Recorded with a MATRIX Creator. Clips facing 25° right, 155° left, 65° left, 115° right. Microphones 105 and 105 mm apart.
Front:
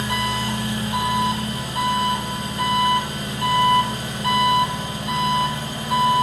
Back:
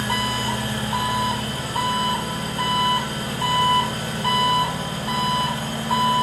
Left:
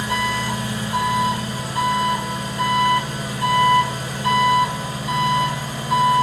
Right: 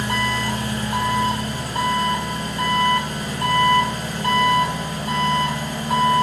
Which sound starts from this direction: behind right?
An engine running, at 0.0 s.